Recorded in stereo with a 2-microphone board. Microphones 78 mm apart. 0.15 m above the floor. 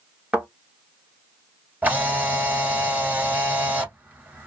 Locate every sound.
0.3 s a thud: 10° right (ahead or behind), 1.2 m
1.8 s a camera shutter: 25° right (ahead or behind), 1.6 m